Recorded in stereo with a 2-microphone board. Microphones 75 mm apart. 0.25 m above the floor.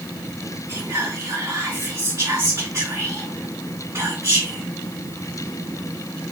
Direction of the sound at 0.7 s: 45° right (ahead or behind).